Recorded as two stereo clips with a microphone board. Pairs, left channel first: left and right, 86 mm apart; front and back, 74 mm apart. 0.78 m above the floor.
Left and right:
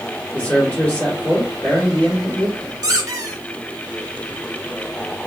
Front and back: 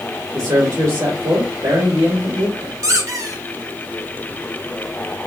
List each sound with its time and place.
0.3 s a man speaking: 160° left, 2 m
2.8 s a squeak: 135° right, 0.6 m